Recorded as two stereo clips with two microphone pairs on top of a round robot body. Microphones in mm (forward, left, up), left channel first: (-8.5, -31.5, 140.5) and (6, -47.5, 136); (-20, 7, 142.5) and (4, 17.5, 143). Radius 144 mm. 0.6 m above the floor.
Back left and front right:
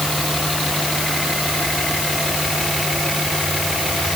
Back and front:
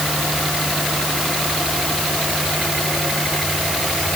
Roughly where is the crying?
No crying in this recording.